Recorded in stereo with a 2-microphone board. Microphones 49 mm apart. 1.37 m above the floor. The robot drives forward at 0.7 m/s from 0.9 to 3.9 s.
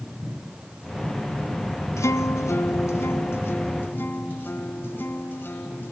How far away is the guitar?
About 1.3 m.